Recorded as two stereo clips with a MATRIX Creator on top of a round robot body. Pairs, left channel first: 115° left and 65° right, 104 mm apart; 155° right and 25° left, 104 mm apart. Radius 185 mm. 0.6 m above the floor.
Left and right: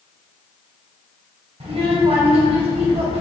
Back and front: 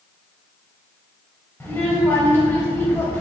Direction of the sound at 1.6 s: 90° right.